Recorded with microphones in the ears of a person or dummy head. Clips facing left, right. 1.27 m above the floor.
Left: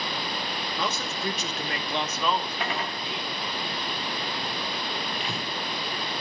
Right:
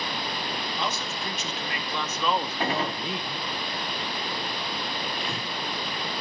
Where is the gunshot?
35° right (ahead or behind), 0.9 m.